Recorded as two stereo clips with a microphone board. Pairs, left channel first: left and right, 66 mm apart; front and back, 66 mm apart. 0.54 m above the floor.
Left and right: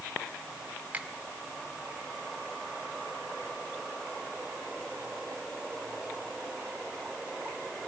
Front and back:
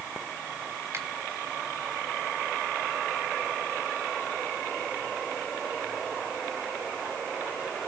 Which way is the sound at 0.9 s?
155° right.